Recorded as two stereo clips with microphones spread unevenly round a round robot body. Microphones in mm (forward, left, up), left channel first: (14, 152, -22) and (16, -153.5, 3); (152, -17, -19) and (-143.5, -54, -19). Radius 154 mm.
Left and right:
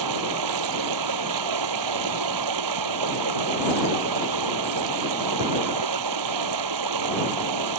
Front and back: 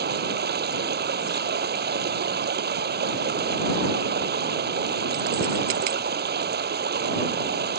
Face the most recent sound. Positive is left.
turn(degrees=-115)